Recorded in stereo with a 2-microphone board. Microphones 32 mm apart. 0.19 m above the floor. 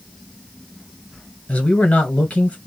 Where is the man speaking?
45° left (ahead or behind), 1.5 m.